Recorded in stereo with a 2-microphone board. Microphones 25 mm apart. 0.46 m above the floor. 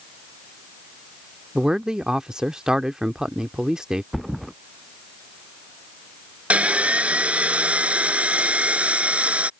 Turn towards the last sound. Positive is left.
turn(degrees=-65)  # may be behind; listen again after turning